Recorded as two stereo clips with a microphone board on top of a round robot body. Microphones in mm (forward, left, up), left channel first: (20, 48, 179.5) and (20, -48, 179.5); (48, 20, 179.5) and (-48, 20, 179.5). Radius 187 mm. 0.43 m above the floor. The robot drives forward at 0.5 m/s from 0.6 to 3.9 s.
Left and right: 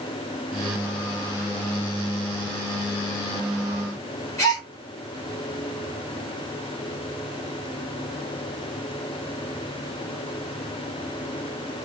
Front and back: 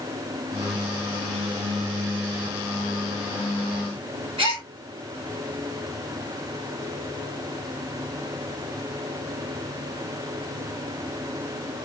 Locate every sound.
4.4 s a gasp: 150° left, 1.9 m